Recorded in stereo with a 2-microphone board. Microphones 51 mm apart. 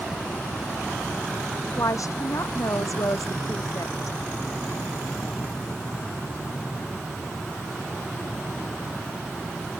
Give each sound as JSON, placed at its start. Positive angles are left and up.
{"t": 1.8, "sound": "a woman speaking", "side_deg": 85}